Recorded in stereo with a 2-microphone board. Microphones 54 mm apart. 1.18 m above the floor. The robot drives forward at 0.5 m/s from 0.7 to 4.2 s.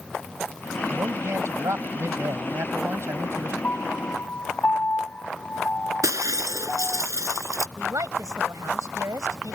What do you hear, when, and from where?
0.9 s a man speaking: 60° right (ahead or behind); by 3.5 s 55° right (ahead or behind)
3.6 s a piano: 40° left (ahead or behind)
6.0 s breaking glass: 65° right (ahead or behind)
7.8 s a woman speaking: 85° right